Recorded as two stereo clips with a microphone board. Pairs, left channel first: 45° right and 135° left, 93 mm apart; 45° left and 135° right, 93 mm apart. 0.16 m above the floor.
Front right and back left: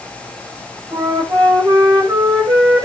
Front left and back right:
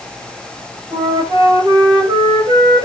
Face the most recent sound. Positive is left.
turn(degrees=175)